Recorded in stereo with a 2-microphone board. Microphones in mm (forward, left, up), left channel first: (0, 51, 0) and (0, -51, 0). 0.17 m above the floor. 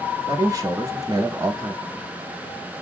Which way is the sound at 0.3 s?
35° right (ahead or behind).